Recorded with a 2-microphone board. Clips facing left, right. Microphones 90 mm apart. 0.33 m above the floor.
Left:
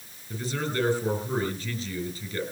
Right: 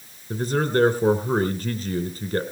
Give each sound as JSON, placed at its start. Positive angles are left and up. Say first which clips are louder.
{"t": 0.3, "sound": "a man speaking", "louder": "right 8 dB", "side_deg": -50, "distance_m": 4.0}